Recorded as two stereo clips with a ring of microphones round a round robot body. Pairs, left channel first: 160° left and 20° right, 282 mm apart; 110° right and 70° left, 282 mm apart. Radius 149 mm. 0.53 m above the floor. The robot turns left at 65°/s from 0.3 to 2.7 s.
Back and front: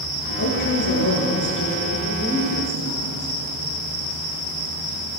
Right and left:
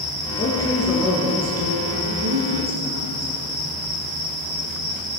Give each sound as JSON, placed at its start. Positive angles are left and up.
{"t": 0.3, "sound": "a woman speaking", "azimuth_deg": -170, "distance_m": 7.5}